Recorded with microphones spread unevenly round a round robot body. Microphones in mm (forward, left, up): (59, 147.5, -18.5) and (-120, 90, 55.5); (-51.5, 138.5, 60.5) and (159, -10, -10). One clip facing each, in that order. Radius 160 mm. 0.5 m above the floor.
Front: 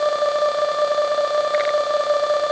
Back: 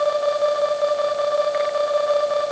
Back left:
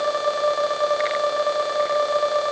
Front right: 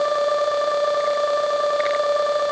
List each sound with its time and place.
Only background noise.